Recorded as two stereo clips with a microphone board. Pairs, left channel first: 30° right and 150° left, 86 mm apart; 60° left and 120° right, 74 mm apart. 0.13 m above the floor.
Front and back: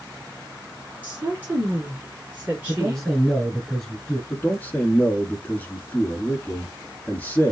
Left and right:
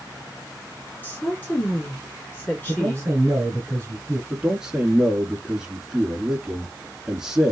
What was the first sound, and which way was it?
A woman speaking, 95° left.